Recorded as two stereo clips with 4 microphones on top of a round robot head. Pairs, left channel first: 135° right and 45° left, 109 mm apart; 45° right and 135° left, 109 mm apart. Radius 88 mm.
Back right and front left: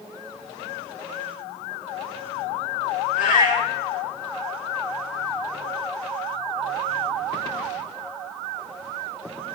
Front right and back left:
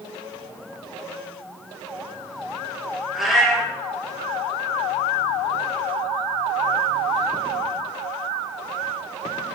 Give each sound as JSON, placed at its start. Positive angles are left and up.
{"t": 3.1, "sound": "a cat meowing", "azimuth_deg": -135, "distance_m": 3.5}